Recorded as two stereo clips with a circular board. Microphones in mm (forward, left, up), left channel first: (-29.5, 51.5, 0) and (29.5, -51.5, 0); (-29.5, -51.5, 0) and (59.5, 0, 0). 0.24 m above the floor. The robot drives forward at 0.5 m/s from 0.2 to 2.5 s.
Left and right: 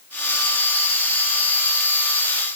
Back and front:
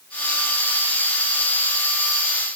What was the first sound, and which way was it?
Only background noise.